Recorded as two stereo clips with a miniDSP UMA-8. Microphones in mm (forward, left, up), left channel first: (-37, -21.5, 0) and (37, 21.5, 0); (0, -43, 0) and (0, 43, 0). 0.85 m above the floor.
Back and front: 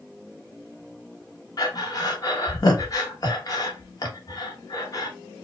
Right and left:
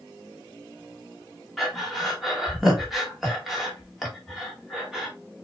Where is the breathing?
Straight behind, 1.2 m.